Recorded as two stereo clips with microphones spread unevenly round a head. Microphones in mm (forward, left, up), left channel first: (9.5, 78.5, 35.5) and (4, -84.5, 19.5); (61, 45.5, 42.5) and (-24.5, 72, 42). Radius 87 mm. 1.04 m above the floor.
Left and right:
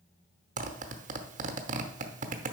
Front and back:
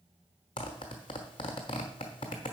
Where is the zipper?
55° right, 0.8 m.